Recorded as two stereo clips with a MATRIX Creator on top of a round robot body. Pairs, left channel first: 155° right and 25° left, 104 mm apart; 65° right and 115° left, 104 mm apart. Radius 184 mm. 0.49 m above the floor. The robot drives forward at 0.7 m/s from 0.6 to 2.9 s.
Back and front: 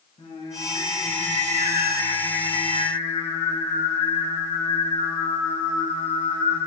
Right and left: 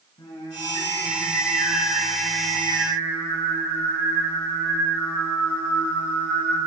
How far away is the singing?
About 3 m.